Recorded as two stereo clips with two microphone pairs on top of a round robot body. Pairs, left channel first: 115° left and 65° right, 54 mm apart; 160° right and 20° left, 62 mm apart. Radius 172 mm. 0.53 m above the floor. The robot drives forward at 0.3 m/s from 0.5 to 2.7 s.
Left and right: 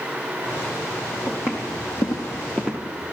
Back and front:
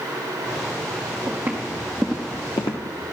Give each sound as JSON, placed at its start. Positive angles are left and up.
{"t": 1.3, "sound": "footsteps", "azimuth_deg": 70, "distance_m": 1.9}